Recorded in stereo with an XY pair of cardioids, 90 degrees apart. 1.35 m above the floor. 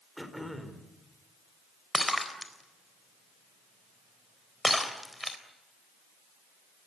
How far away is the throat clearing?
About 4 m.